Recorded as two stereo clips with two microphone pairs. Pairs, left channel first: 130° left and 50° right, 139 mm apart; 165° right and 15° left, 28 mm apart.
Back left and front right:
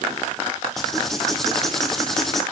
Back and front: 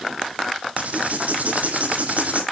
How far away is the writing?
About 1.9 m.